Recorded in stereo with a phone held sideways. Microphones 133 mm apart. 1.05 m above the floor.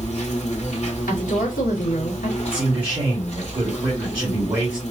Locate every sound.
0.0 s an insect: 55° left (ahead or behind), 1.4 m
1.1 s a woman speaking: 85° left, 1.6 m
2.5 s a man speaking: 35° right (ahead or behind), 1.8 m